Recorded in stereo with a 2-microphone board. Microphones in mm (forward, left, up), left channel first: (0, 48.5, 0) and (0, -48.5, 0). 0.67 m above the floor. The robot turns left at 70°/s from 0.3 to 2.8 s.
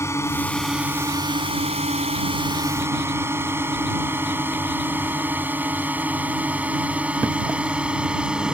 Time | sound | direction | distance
0.0 | a drone | 25° left (ahead or behind) | ?